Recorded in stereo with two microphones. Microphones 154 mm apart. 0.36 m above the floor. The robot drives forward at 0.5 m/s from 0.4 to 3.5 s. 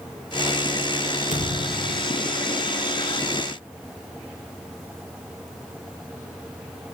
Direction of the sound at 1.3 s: 55° left (ahead or behind).